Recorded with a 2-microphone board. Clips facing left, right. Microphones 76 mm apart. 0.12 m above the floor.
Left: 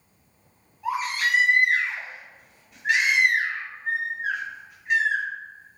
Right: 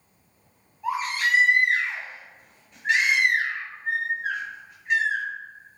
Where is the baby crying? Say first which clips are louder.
Even; 5° left (ahead or behind), 1.6 m.